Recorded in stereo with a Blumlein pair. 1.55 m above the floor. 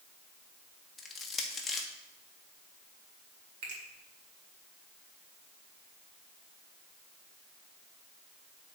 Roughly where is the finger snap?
Ahead right.